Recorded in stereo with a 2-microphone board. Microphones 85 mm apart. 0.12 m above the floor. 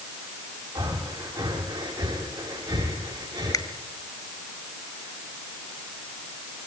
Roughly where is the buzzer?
No buzzer in this recording.